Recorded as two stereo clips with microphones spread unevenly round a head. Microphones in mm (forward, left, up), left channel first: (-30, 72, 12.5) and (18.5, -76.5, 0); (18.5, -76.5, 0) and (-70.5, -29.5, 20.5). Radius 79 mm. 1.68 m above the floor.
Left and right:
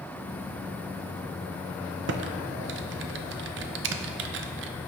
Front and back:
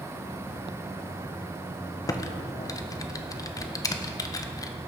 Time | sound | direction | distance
2.1 | typing on a keyboard | 85° right | 0.6 m